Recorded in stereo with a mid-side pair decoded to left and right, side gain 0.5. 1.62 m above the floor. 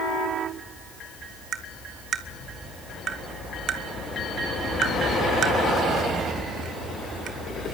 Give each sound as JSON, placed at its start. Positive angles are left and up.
{"t": 1.5, "sound": "tapping", "azimuth_deg": -55, "distance_m": 2.0}